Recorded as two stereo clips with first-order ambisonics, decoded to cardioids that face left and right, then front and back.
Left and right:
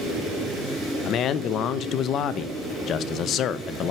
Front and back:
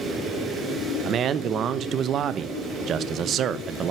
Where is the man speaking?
130° left, 0.5 m.